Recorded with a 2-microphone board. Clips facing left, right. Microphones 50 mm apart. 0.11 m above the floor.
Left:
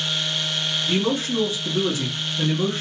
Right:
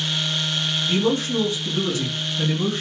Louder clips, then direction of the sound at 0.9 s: Right 2 dB; 25° left (ahead or behind).